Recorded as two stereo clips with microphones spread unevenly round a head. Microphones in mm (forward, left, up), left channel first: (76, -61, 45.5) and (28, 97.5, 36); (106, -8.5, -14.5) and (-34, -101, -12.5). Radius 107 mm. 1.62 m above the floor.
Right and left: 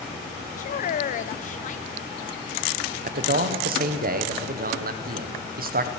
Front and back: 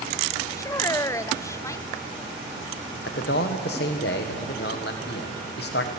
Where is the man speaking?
80° left, 1.3 m.